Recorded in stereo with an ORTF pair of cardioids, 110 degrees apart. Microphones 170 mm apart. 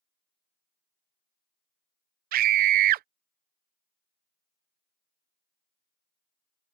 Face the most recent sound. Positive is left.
turn(degrees=-65)